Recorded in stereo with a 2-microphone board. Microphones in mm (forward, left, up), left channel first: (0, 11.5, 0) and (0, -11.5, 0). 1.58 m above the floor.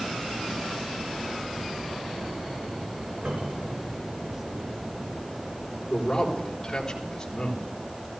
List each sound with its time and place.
3.2 s a cupboard door: 80° right, 6.5 m
5.9 s a man speaking: 20° left (ahead or behind), 3.5 m